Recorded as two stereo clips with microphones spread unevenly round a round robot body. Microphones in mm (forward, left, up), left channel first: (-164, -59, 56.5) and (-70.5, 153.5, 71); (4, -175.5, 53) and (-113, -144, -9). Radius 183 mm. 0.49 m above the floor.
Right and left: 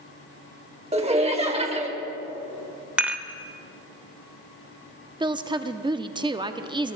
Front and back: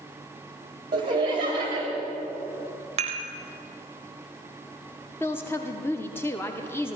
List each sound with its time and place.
0.9 s laughter: 130° left, 1.7 m
3.0 s dishes clattering: 150° left, 1.2 m
5.2 s a woman speaking: 105° left, 0.8 m